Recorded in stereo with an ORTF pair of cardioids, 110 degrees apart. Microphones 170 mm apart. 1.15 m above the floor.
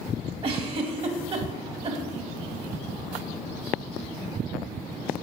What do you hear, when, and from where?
0.4 s a giggle: 35° right, 1.0 m